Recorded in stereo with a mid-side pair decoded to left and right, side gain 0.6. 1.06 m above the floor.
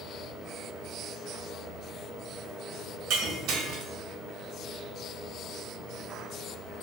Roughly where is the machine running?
Ahead.